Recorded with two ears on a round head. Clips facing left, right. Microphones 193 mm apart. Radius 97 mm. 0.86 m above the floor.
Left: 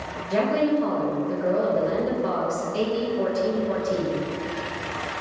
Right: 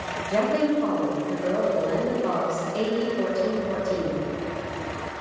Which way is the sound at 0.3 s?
10° left (ahead or behind).